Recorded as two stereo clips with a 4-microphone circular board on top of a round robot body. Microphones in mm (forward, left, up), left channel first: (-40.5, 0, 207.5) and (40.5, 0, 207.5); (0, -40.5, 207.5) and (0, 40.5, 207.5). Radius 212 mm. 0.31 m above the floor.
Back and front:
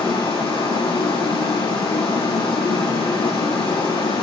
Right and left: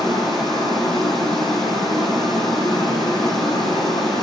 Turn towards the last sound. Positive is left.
turn(degrees=180)